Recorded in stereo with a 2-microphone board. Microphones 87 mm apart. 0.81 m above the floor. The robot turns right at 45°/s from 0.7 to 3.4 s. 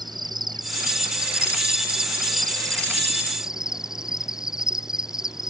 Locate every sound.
0.0 s an insect: 125° right; by 5.5 s 5° right